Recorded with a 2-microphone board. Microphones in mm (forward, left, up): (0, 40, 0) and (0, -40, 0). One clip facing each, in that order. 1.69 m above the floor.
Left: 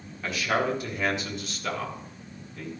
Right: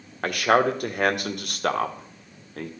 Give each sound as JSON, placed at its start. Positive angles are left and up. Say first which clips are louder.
{"t": 0.2, "sound": "a man speaking", "louder": "right 6 dB", "side_deg": -60, "distance_m": 1.5}